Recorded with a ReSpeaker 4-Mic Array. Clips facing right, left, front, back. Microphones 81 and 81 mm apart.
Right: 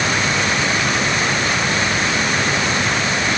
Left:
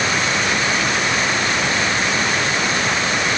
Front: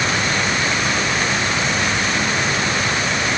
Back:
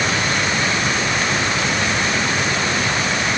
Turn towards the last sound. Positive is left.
No sound to turn to.